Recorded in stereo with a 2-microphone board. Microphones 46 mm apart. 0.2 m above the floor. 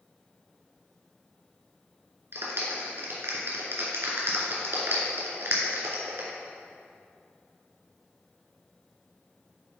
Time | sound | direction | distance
2.3 | a clap | 60° right (ahead or behind) | 2.0 m